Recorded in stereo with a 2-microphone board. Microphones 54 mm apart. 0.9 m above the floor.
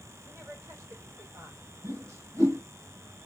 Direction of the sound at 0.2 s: 75° right (ahead or behind).